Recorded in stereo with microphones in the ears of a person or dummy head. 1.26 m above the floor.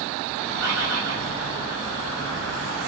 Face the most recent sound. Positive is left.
turn(degrees=-75)  # may be behind; listen again after turning